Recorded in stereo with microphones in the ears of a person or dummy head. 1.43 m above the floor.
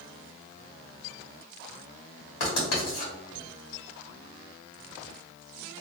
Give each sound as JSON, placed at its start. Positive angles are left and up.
{"t": 2.4, "sound": "writing", "side_deg": 60, "distance_m": 2.0}